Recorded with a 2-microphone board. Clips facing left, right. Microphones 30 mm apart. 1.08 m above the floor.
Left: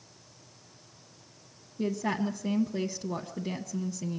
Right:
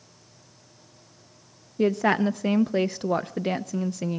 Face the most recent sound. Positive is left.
turn(degrees=-50)  # may be behind; listen again after turning